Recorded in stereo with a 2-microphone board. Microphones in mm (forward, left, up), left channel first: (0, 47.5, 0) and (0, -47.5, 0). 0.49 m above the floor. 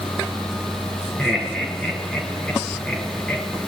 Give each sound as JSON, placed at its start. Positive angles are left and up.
{"t": 1.2, "sound": "laughter", "side_deg": 5, "distance_m": 7.0}